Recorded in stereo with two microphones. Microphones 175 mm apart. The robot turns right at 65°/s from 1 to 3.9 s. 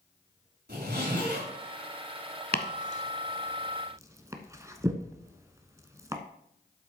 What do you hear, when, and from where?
0.7 s a zipper: 105° right, 5 m; by 1.5 s 70° right, 5 m
2.5 s chopping: 70° left (ahead or behind), 0.9 m; by 6.2 s 20° right (ahead or behind), 0.9 m